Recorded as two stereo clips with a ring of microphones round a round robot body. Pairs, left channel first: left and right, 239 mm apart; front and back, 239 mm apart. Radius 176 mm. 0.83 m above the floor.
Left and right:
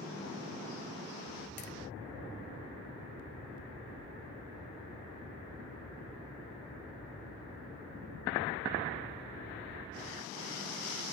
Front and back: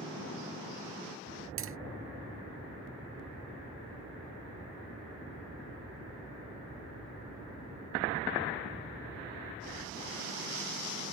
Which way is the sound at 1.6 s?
150° left.